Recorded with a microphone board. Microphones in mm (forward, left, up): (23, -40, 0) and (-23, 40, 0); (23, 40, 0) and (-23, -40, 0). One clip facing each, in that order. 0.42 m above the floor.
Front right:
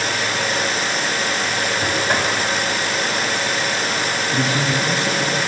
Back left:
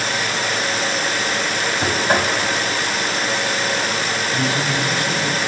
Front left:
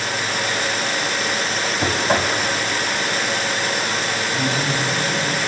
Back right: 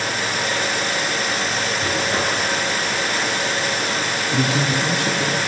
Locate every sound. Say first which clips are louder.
1.8 s knocking: back left 3 dB, front left 4 dB; 50° left, 2.5 m
4.3 s a man speaking: front right 1 dB, back right 4 dB; 125° right, 4.5 m